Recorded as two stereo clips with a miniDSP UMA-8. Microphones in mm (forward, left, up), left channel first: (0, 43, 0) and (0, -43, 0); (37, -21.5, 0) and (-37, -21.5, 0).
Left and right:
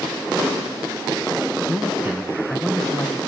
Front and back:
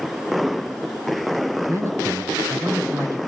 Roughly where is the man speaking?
Behind right.